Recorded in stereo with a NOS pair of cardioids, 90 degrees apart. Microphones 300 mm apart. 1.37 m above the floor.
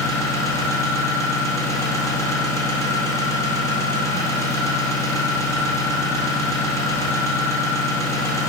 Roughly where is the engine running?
Ahead.